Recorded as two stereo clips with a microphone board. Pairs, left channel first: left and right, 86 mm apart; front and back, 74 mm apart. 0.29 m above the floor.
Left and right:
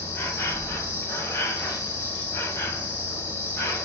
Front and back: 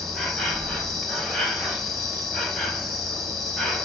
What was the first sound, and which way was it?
An insect, 90° left.